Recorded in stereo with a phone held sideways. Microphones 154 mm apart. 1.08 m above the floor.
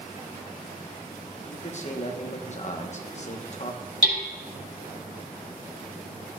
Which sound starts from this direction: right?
Hammering, at 4.0 s.